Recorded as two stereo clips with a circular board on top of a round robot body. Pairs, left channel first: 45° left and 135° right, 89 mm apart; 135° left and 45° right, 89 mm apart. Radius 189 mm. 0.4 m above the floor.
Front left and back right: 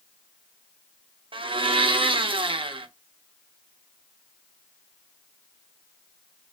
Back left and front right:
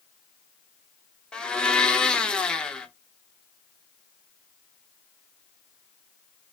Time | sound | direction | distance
1.3 | a blender | 145° right | 0.7 m